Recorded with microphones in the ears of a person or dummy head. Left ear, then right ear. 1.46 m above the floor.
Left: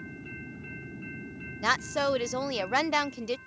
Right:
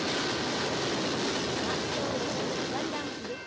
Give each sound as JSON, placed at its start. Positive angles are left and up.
{"t": 1.6, "sound": "a woman speaking", "side_deg": 65}